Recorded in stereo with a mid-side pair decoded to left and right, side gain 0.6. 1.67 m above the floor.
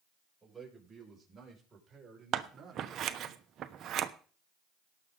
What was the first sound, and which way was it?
A man speaking, 15° right.